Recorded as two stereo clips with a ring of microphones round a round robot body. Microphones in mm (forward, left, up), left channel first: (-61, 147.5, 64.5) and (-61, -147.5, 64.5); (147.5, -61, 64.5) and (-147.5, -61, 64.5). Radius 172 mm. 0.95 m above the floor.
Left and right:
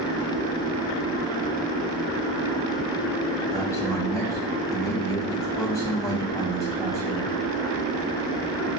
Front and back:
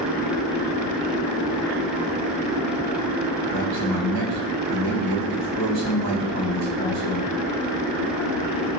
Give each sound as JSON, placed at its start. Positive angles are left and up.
{"t": 3.5, "sound": "a man speaking", "azimuth_deg": 170, "distance_m": 6.0}